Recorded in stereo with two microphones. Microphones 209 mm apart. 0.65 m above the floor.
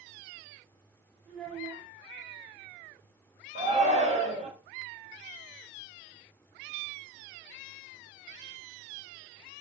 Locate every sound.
1.3 s a child speaking: 35° right (ahead or behind), 1.4 m
3.5 s a shout: 35° right (ahead or behind), 0.8 m